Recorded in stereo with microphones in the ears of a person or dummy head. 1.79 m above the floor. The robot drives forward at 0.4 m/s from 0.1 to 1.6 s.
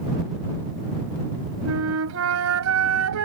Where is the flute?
85° right.